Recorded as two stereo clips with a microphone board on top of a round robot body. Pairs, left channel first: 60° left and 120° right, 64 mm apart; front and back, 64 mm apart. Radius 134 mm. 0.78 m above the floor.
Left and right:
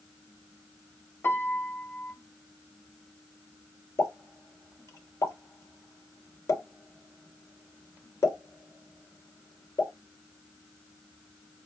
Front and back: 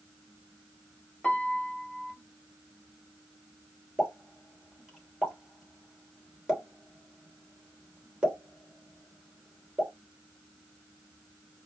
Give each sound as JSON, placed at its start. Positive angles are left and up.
{"t": 1.2, "sound": "a piano", "azimuth_deg": 65, "distance_m": 1.2}
{"t": 4.0, "sound": "a pop", "azimuth_deg": 100, "distance_m": 3.0}